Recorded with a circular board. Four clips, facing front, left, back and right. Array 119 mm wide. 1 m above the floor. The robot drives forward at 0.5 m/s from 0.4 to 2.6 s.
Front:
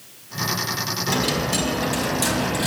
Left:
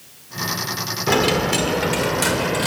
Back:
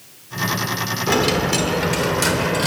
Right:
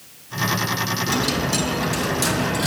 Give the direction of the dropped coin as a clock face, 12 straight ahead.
8 o'clock.